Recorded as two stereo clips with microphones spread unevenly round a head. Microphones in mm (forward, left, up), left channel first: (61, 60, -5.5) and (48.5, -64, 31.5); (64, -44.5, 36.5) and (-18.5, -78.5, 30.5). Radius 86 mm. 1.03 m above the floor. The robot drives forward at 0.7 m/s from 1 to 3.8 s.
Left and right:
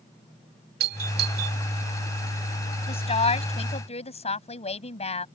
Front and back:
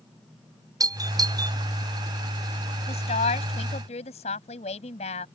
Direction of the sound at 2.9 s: 40° left.